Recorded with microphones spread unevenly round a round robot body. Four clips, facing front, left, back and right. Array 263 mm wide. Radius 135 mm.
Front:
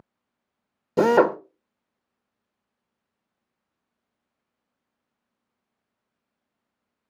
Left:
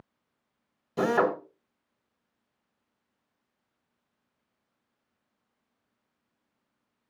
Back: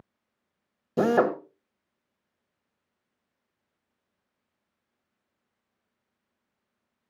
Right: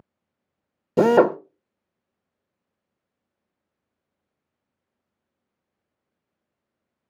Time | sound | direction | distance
1.0 | a drill | 75° right | 0.8 m